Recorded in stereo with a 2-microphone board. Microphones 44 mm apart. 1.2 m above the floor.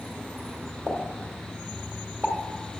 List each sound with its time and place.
0.9 s a pop: 30° right (ahead or behind), 1.3 m